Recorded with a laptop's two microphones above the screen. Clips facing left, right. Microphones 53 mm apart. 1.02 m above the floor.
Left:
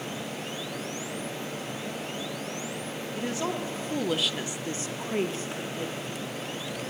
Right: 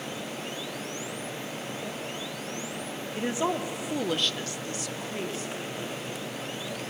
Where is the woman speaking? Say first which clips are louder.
Right 3 dB; 25° right (ahead or behind), 1.4 m; by 6.1 s 40° left (ahead or behind), 1.8 m.